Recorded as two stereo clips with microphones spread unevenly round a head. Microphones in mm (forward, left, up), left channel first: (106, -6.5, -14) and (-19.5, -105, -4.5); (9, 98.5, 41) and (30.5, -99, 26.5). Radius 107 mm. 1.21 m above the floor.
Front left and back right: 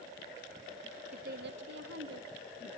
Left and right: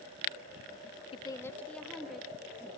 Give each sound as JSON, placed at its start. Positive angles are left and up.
{"t": 1.1, "sound": "a woman speaking", "azimuth_deg": 160, "distance_m": 0.7}